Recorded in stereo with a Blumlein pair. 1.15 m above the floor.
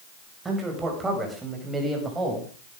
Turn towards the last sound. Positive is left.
turn(degrees=-5)